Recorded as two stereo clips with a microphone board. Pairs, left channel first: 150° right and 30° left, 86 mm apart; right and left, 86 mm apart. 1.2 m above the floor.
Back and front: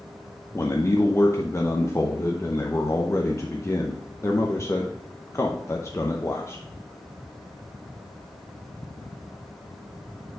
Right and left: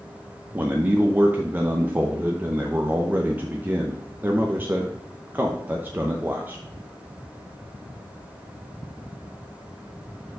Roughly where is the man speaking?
Behind left.